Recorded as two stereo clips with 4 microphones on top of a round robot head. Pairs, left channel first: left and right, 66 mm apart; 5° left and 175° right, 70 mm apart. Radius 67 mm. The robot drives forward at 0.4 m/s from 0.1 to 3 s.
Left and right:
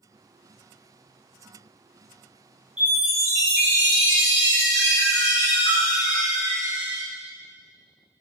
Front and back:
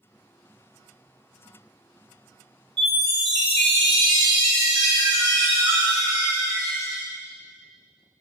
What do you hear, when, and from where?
2.8 s a chime: 165° right, 3 m